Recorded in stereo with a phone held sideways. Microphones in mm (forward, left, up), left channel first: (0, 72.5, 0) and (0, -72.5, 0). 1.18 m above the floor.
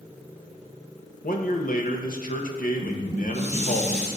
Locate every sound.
1.2 s a man speaking: 70° left (ahead or behind), 1.2 m
2.8 s dishes clattering: 50° left (ahead or behind), 3 m